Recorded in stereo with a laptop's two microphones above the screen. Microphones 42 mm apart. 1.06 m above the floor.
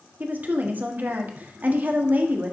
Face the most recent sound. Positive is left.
turn(degrees=-40)  # may be behind; listen again after turning